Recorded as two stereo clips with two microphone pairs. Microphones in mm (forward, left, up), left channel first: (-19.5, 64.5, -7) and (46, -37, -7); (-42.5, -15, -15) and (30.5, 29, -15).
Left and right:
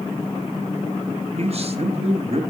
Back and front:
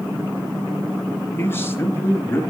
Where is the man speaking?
85° right, 4 m.